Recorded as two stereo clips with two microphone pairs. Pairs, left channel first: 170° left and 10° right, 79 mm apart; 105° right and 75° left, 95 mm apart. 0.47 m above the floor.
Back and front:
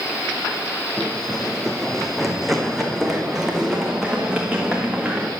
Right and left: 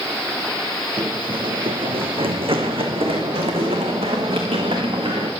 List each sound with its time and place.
1.0 s running footsteps: 95° left, 1.3 m; by 5.3 s 70° left, 3.5 m